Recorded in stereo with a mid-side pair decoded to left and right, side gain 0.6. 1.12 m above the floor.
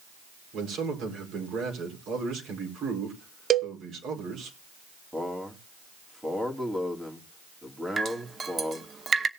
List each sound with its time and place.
0.5 s a man speaking: 55° right, 4.5 m
3.5 s a cowbell: 40° right, 0.7 m
5.1 s a man speaking: 10° right, 2.5 m
8.0 s dripping: 30° right, 0.9 m